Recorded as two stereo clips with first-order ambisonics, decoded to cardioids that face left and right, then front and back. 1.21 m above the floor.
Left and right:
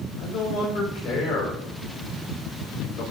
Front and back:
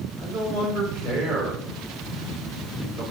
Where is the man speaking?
125° left, 4.5 m.